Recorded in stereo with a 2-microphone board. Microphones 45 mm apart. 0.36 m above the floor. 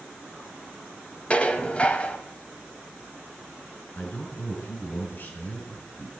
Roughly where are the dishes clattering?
Left.